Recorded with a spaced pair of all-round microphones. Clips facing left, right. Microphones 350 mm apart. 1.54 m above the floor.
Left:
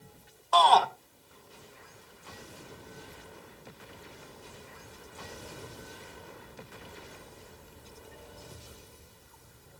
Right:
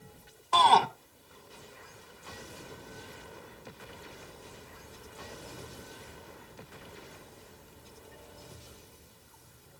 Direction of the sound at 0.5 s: 35° right (ahead or behind).